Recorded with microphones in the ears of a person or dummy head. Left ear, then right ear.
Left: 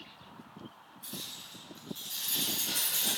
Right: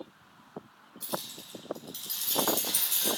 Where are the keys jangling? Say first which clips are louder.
Right 5 dB; 80° right, 4.5 m.